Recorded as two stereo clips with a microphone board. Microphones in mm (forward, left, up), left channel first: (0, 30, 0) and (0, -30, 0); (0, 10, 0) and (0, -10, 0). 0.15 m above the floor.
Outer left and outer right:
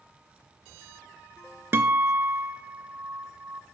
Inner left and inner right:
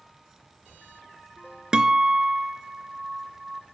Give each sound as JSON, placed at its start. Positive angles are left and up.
{"t": 1.7, "sound": "a guitar", "side_deg": -45, "distance_m": 0.6}